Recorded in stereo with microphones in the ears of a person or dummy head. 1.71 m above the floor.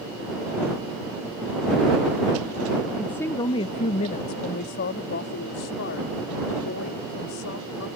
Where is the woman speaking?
Centre (ahead or behind); by 7.9 s 70° left (ahead or behind).